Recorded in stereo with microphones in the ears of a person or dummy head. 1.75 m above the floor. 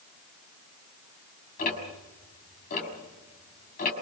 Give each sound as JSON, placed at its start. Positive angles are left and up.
{"t": 1.6, "sound": "ticking", "side_deg": 50, "distance_m": 6.0}